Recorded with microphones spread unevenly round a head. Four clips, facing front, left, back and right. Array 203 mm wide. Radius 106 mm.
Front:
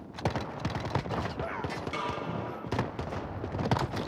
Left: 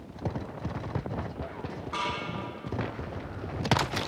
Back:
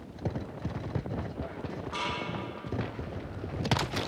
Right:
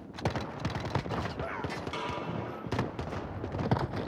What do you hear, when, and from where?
1.9 s a snare drum: 55° right, 4.5 m